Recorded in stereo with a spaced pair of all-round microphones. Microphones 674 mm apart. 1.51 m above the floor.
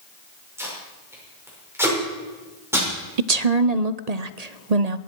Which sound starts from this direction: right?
A woman speaking, at 3.2 s.